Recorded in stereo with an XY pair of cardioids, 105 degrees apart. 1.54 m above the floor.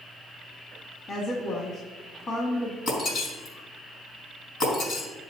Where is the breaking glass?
65° left, 4 m.